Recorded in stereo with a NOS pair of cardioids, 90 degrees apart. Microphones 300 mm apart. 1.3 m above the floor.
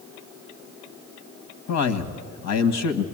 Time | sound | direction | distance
1.7 | a man speaking | 70° left | 1.6 m